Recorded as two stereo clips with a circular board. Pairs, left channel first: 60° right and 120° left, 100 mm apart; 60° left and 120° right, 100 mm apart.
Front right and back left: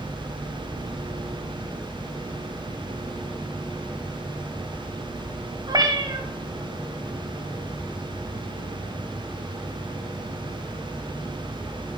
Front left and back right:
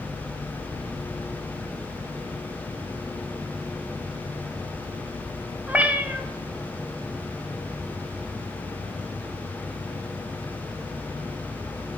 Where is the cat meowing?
165° left, 0.9 m.